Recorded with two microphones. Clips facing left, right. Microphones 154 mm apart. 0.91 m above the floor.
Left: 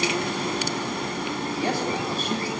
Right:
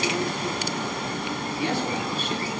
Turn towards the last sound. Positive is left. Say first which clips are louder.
# even
turn(degrees=40)  # may be behind; listen again after turning